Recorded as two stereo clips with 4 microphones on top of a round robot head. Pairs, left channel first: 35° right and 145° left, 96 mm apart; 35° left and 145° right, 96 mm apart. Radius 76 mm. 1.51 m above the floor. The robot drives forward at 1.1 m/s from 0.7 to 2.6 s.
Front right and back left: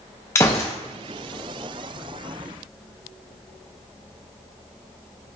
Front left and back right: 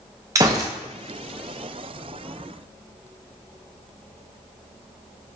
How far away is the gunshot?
About 0.7 m.